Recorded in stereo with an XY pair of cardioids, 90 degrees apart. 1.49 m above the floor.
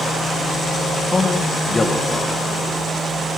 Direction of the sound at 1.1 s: 30° left.